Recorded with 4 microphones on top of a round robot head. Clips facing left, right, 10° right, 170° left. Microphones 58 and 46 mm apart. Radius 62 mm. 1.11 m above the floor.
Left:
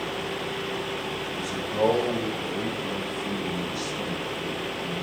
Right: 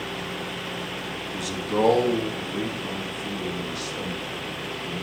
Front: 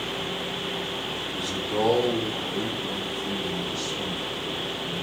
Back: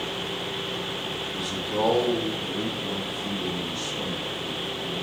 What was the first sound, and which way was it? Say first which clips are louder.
A man speaking: right 5 dB, front 1 dB; 100° right.